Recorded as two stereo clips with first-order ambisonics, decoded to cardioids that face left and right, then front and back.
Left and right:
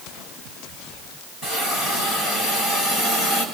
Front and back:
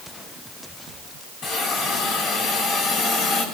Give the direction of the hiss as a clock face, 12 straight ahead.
11 o'clock.